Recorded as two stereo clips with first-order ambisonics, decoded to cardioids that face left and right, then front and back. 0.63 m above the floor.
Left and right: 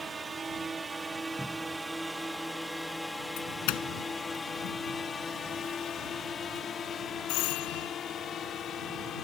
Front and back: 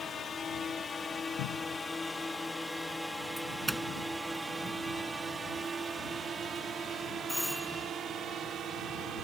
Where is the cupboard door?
5° right.